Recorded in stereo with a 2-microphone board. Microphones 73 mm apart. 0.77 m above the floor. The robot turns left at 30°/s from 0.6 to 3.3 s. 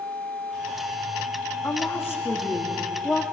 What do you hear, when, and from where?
1.6 s a woman speaking: 55° left, 1.4 m; by 3.2 s 5° left, 1.4 m